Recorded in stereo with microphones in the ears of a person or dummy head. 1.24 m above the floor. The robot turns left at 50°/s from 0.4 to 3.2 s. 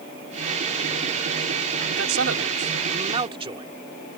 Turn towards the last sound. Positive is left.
turn(degrees=-155)